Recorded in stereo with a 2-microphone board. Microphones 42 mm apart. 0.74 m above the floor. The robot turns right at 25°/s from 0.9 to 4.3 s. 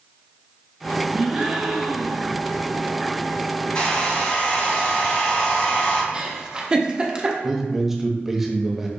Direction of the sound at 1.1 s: 155° right.